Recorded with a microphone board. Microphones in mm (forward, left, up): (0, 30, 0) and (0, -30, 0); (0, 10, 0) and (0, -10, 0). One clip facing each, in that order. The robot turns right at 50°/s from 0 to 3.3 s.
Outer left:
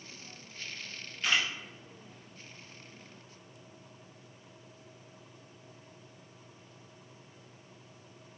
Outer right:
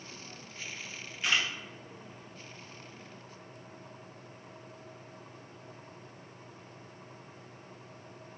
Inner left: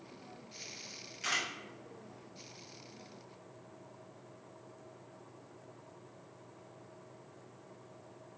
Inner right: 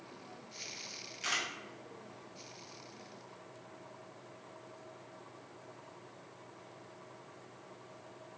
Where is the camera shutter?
10° right (ahead or behind), 0.9 m; by 1.5 s 5° left (ahead or behind), 0.9 m.